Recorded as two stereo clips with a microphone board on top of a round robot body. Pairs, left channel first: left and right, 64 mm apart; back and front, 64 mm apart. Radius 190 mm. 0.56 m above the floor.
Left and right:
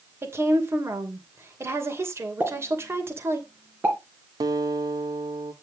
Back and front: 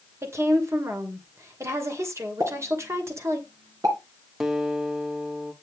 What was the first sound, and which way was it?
A woman speaking, 45° right.